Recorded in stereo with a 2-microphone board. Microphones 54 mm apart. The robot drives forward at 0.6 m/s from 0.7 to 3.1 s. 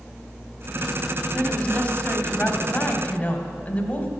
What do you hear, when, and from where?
1.3 s a woman speaking: 25° left (ahead or behind), 1.8 m; by 4.1 s 30° left (ahead or behind), 1.6 m